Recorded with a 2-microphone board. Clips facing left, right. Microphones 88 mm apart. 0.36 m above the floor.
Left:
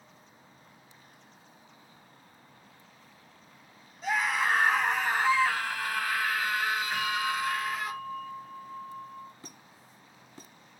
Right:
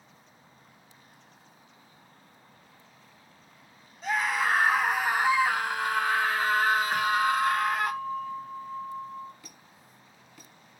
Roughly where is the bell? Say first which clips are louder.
Right 6 dB; right.